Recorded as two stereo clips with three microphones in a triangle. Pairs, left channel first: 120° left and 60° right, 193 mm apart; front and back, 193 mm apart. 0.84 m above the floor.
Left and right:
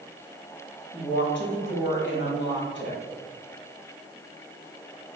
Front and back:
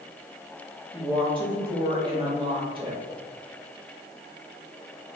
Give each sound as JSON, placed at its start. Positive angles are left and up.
{"t": 0.9, "sound": "a woman speaking", "azimuth_deg": 120, "distance_m": 1.1}